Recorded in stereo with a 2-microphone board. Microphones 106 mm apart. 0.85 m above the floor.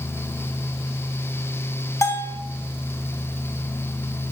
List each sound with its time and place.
2.0 s a bell: 30° left (ahead or behind), 0.5 m